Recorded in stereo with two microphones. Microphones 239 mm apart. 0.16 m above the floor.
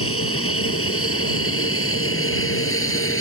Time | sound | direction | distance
0.0 | an aircraft | 65° left (ahead or behind) | ?